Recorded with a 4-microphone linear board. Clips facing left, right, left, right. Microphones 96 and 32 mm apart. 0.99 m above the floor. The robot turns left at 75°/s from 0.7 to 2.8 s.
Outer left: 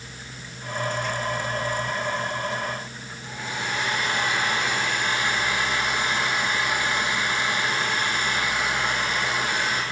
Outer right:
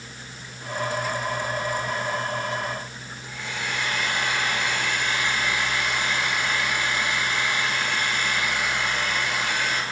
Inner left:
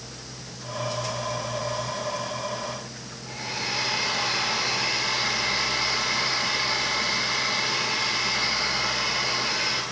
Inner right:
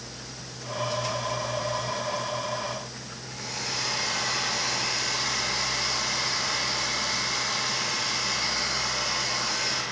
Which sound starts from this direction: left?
A hair dryer, at 3.3 s.